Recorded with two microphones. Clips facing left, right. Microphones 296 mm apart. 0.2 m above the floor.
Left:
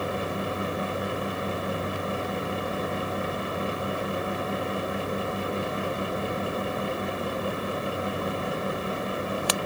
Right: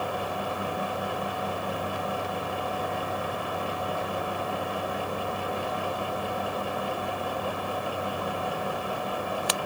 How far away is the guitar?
I don't hear a guitar.